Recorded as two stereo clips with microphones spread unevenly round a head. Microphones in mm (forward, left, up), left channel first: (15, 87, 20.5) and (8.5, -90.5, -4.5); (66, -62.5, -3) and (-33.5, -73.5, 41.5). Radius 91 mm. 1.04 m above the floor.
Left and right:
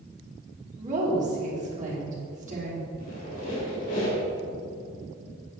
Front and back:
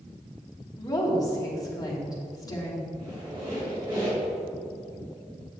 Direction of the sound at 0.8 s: 45° right.